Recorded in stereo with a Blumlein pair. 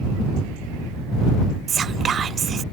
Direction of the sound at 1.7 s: 20° right.